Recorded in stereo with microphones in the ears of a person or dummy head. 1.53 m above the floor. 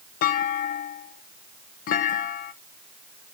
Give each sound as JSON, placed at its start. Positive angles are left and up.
{"t": 0.2, "sound": "a clunk", "side_deg": 55, "distance_m": 0.8}